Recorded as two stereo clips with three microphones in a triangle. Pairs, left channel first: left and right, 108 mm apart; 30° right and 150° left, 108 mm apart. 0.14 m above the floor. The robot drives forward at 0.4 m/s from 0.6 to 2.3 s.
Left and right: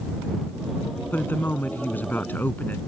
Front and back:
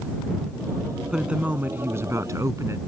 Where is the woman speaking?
80° left; by 2.8 s 140° left.